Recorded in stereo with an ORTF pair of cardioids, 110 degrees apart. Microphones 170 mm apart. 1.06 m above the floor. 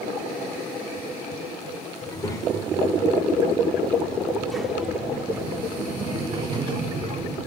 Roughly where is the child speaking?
Ahead left.